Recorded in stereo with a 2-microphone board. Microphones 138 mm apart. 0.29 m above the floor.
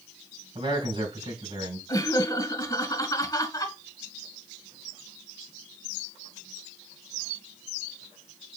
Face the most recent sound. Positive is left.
turn(degrees=25)  # may be behind; listen again after turning